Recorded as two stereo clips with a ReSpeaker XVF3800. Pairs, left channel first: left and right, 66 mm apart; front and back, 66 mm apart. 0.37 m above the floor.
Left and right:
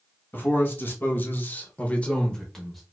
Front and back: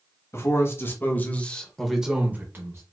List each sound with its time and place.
0.3 s a man speaking: 35° left, 1.6 m; by 2.8 s straight behind, 1.1 m